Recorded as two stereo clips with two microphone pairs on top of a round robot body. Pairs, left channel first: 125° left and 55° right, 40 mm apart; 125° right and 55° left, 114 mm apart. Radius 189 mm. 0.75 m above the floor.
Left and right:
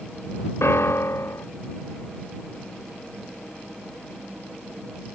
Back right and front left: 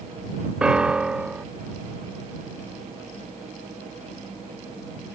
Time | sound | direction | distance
0.6 | a piano | 140° left | ?